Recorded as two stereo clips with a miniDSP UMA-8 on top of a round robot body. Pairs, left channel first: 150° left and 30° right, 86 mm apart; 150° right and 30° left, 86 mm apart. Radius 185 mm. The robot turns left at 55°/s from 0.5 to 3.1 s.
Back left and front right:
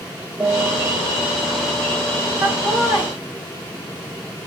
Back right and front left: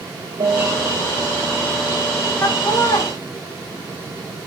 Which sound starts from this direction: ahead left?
A piano, at 0.4 s.